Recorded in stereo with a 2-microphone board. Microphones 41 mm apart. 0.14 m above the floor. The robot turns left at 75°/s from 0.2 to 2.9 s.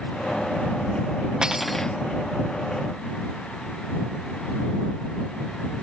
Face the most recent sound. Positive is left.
turn(degrees=85)